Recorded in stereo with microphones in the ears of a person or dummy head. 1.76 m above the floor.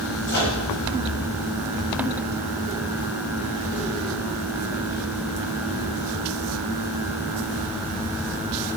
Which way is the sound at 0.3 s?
65° left (ahead or behind).